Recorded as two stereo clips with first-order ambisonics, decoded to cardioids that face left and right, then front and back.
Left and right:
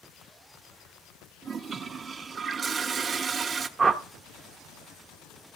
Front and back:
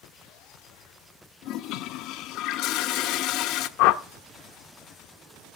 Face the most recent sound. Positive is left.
turn(degrees=-15)